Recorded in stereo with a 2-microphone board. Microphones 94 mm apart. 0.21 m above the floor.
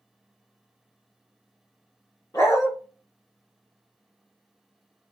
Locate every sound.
2.3 s a dog barking: 40° left (ahead or behind), 0.9 m